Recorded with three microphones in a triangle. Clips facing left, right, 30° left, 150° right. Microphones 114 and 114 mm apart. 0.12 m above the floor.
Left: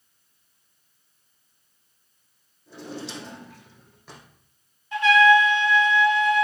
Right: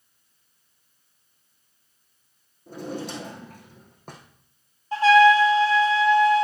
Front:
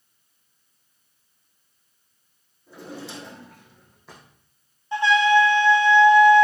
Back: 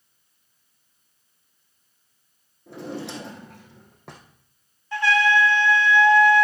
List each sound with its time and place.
2.7 s a drawer: 130° right, 2.5 m
4.9 s a trumpet: 40° right, 0.9 m